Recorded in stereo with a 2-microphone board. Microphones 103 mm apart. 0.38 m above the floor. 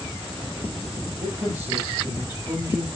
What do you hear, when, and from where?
1.2 s a man speaking: 30° right (ahead or behind), 9 m